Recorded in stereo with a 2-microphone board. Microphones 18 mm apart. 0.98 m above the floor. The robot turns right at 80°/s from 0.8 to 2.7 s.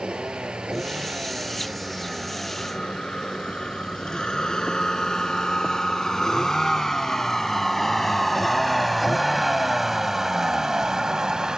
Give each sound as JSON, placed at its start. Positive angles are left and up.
{"t": 0.0, "sound": "a vehicle", "side_deg": -80}